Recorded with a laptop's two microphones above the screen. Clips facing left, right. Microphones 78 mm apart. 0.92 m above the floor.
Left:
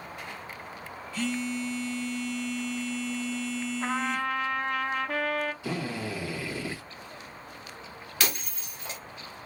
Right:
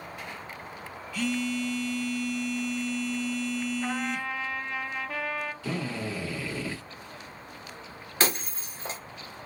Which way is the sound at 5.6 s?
15° left (ahead or behind).